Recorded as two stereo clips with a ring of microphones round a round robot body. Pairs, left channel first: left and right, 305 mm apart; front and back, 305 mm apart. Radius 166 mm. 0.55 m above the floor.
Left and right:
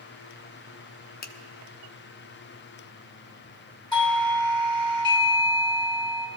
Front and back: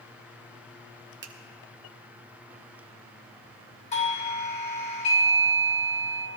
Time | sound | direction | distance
1.2 | a finger snap | 140° left | 0.8 m
3.9 | a doorbell | 35° left | 1.4 m